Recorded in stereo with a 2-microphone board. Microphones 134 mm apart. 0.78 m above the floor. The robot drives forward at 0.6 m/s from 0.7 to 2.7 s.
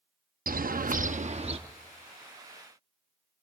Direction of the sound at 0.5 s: 80° right.